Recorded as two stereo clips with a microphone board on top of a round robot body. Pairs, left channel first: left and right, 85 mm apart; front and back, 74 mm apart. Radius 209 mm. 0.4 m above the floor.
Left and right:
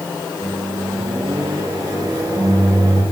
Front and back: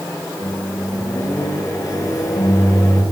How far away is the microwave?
About 2.5 m.